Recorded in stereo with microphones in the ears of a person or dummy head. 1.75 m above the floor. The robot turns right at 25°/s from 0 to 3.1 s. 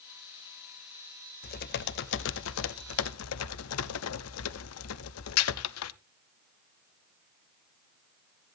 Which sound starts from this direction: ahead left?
Typing on a keyboard, at 1.4 s.